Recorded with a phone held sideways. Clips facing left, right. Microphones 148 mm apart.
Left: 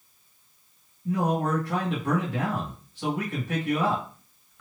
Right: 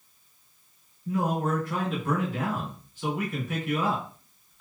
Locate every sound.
1.1 s a man speaking: 65° left (ahead or behind), 2 m